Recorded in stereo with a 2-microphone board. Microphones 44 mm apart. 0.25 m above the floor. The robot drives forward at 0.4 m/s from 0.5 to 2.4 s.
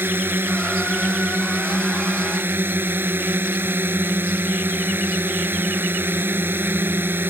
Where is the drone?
55° right (ahead or behind).